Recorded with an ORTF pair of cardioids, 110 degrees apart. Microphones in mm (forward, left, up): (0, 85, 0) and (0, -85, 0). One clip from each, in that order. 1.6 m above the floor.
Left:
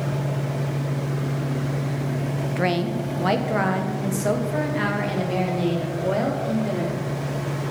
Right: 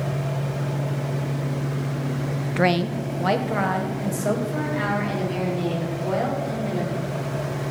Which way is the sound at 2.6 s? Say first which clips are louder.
Right 3 dB; 25° right.